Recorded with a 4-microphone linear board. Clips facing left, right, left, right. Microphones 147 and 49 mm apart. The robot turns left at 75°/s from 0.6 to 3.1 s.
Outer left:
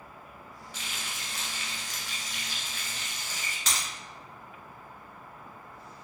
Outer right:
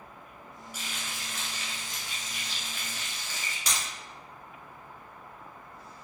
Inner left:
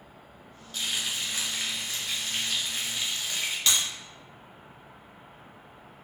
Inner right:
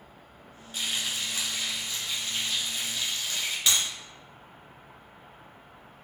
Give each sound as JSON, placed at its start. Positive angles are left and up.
{"t": 0.7, "sound": "frying", "azimuth_deg": -170, "distance_m": 1.3}
{"t": 3.7, "sound": "breaking glass", "side_deg": -10, "distance_m": 1.8}